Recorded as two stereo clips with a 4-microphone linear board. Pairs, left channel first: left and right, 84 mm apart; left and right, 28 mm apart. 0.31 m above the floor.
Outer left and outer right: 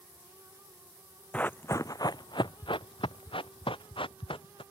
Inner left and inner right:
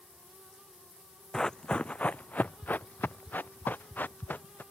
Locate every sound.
1.3 s running footsteps: 15° left (ahead or behind); by 4.6 s 80° left